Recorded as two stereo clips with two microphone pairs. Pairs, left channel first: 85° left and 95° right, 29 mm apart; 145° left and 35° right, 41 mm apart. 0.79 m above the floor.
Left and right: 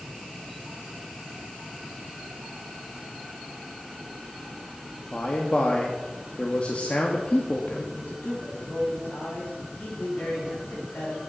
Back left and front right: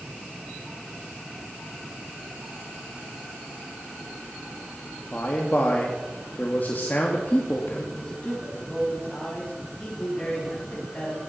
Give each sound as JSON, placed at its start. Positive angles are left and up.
{"t": 5.1, "sound": "a man speaking", "azimuth_deg": 115, "distance_m": 1.5}
{"t": 8.0, "sound": "a man speaking", "azimuth_deg": 85, "distance_m": 5.0}